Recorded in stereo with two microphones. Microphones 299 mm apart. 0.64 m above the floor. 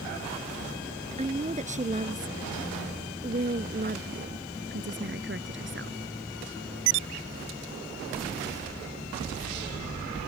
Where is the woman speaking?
20° right (ahead or behind); by 6.0 s 40° right (ahead or behind).